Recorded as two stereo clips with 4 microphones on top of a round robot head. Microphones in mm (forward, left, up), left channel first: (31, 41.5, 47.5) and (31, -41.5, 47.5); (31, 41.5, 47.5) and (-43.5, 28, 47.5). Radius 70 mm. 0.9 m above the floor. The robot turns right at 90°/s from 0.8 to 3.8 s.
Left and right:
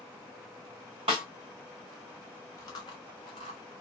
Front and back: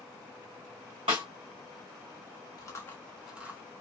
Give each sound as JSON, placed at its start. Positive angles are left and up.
{"t": 1.1, "sound": "a snare drum", "azimuth_deg": -135, "distance_m": 1.3}
{"t": 2.6, "sound": "chewing", "azimuth_deg": 45, "distance_m": 0.8}